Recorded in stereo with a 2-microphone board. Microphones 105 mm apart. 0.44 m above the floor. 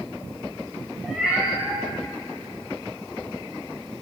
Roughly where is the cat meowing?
Centre.